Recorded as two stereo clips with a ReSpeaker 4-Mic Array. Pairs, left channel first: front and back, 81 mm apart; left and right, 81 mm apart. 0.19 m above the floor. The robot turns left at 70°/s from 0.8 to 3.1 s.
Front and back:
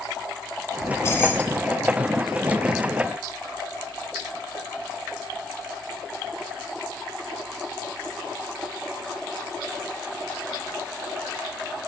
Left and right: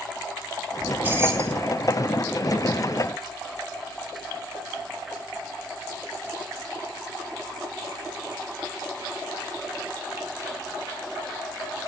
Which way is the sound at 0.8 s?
20° right.